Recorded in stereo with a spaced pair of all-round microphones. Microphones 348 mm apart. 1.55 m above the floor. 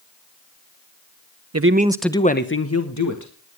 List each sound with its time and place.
1.5 s a man speaking: 45° right (ahead or behind), 0.8 m; by 3.3 s 50° left (ahead or behind), 2.0 m